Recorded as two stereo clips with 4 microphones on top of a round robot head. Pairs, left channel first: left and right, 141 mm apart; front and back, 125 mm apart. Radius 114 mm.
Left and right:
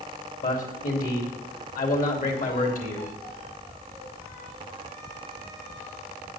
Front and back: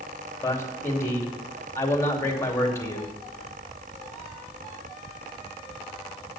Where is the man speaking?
70° left, 3 m.